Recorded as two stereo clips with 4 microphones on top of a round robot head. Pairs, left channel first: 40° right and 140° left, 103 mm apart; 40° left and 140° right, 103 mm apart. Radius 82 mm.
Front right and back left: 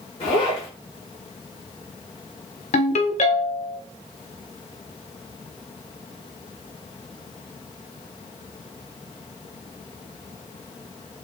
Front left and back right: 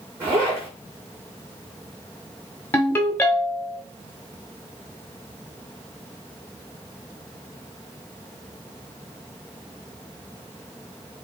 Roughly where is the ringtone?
Ahead right.